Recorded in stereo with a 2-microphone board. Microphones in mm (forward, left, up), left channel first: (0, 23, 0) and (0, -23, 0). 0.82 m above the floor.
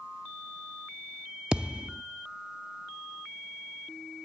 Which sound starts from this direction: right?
A thud, at 1.5 s.